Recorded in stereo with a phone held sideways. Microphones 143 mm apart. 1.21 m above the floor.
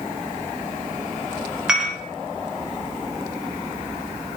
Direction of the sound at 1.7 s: 5° right (ahead or behind).